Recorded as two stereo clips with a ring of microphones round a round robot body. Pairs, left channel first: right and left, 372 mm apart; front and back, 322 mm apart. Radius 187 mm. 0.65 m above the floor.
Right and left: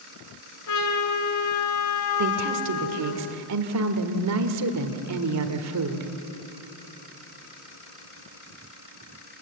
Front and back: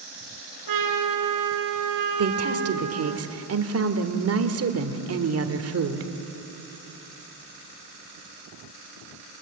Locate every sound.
0.7 s a trumpet: 135° right, 3 m
2.2 s a woman speaking: 135° left, 1.7 m